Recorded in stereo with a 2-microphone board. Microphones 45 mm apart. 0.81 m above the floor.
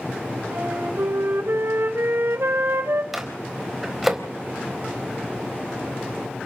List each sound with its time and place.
0.5 s a flute: 70° right (ahead or behind), 4 m
3.1 s a microwave: 5° right (ahead or behind), 3.5 m